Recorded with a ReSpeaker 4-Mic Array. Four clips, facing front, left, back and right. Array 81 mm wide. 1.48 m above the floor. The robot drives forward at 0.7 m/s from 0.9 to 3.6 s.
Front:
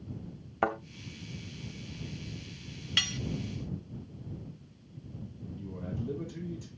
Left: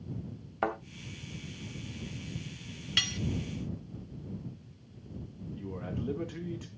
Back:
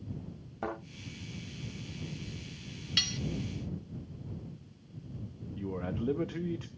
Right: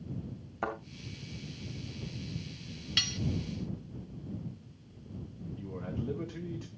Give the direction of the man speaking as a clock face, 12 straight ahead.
6 o'clock.